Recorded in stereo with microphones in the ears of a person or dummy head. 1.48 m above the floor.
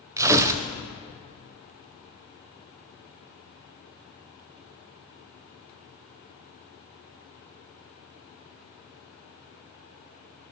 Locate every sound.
0.2 s tearing paper: 15° right (ahead or behind), 0.5 m